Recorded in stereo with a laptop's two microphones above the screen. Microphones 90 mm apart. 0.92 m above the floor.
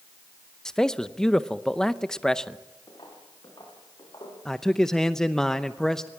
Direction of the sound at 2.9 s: 55° left (ahead or behind).